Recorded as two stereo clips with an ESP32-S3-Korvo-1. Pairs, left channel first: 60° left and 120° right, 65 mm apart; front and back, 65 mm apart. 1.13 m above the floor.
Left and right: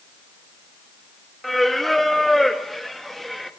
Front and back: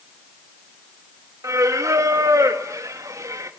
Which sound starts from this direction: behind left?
Singing, at 1.4 s.